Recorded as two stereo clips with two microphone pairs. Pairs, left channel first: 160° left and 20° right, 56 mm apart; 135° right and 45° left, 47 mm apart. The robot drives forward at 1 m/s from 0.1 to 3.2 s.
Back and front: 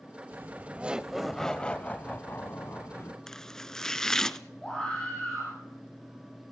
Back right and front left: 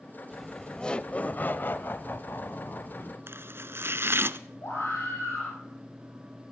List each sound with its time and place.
0.3 s laughter: 40° right, 1.3 m; by 3.2 s 165° right, 2.5 m
3.3 s chopping: 80° left, 0.7 m
4.6 s a scream: 130° right, 7.5 m